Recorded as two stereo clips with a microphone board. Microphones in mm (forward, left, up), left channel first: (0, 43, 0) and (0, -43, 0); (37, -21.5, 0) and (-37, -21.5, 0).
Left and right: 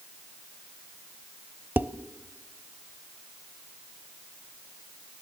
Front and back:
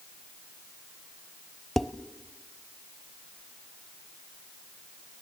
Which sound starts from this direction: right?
Dishes clattering, at 1.8 s.